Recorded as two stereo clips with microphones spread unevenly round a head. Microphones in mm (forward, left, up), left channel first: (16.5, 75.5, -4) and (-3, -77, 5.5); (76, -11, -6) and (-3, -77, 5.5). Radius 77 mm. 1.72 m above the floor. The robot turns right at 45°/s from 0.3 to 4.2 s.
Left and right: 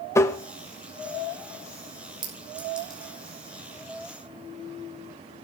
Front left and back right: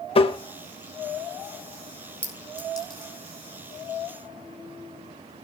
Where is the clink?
40° right, 6 m; by 3.1 s 5° left, 6 m.